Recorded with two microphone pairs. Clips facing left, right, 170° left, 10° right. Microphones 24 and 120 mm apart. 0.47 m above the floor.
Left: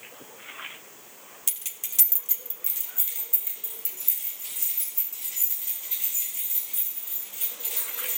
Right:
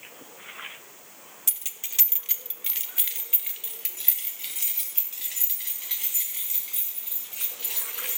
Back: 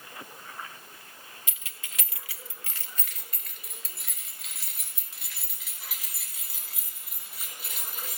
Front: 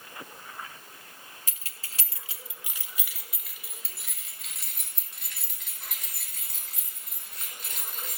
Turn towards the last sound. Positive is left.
turn(degrees=-105)